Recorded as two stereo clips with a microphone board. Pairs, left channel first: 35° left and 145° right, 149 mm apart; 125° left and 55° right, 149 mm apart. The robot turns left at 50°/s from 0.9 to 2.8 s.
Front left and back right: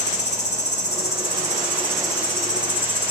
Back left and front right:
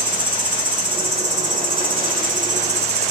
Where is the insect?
Straight ahead, 1.2 m; by 3.1 s 95° right, 1.2 m.